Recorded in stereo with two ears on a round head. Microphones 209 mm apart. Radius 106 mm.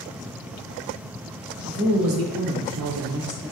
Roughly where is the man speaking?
Right.